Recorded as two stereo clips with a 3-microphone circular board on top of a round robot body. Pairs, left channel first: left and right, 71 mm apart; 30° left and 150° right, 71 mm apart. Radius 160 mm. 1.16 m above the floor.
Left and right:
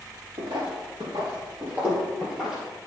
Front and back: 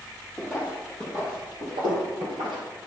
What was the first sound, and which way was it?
Footsteps, 65° right.